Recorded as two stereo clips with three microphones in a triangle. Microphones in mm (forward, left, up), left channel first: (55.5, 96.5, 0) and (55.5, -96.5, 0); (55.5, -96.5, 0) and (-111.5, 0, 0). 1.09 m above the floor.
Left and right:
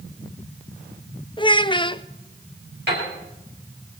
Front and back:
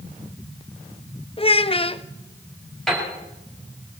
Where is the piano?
120° right, 6 m.